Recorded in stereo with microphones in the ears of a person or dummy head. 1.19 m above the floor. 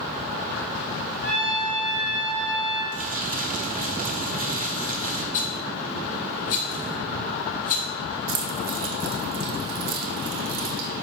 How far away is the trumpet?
About 2.5 m.